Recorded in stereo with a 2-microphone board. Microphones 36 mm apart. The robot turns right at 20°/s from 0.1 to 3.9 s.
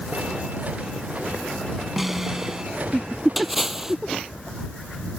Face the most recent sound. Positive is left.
turn(degrees=-15)  # may be behind; listen again after turning